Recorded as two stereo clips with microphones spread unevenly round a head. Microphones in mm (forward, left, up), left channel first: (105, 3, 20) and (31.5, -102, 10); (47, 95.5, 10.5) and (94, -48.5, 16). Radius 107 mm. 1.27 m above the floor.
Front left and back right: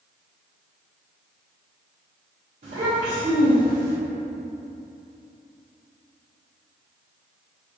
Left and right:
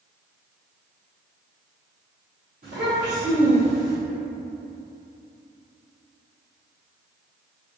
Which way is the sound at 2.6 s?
120° right.